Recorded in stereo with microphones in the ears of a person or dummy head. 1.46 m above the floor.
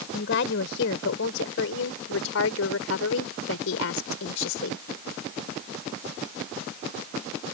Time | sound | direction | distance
0.1 | a woman speaking | 65° left (ahead or behind) | ?